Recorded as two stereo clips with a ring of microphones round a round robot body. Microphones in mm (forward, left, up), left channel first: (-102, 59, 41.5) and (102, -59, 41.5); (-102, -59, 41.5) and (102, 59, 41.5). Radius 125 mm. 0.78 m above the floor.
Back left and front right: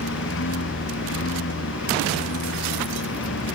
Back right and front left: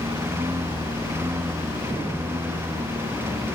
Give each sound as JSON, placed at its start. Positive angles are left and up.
{"t": 0.0, "sound": "a lawn mower", "azimuth_deg": 110}